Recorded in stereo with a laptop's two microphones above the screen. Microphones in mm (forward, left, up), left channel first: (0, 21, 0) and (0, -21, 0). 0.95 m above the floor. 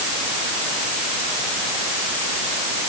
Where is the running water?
No running water in this recording.